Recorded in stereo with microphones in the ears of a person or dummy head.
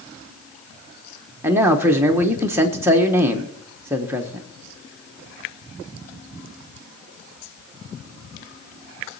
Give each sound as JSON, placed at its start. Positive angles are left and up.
{"t": 1.4, "sound": "a man speaking", "side_deg": -10, "distance_m": 1.2}